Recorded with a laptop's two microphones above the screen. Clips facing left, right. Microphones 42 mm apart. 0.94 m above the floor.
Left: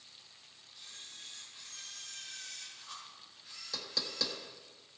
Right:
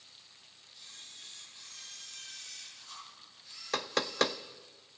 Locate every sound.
0.7 s a camera shutter: 25° left (ahead or behind), 7.5 m
3.7 s knocking: 50° right (ahead or behind), 0.6 m